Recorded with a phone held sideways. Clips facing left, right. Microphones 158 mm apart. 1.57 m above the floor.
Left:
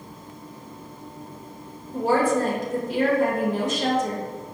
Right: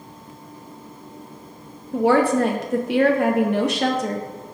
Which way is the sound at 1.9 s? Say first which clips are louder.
Right 4 dB; 65° right (ahead or behind).